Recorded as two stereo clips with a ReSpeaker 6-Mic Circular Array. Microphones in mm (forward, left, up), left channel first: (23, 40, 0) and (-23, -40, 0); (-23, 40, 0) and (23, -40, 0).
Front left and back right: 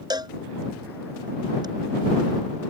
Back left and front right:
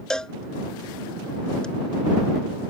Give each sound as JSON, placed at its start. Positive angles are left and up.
{"t": 0.1, "sound": "a cowbell", "azimuth_deg": -160}